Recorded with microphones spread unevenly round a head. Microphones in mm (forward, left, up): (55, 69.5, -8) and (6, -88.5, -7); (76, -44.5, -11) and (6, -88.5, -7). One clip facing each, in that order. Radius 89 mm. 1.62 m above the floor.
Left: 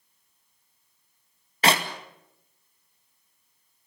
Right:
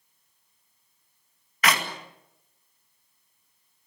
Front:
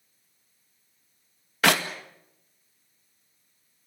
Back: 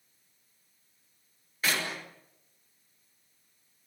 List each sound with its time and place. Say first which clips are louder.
1.6 s a clap: left 3 dB, front 9 dB; 10° left, 2 m